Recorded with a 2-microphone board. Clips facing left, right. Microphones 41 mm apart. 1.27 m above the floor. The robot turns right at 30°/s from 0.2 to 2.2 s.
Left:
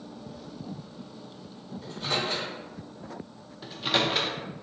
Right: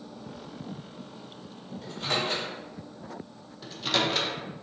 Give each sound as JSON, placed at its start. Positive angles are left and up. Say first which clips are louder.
{"t": 1.8, "sound": "a microwave", "louder": "right 1 dB", "side_deg": -85, "distance_m": 1.8}
{"t": 3.6, "sound": "a microwave", "louder": "left 1 dB", "side_deg": 10, "distance_m": 0.5}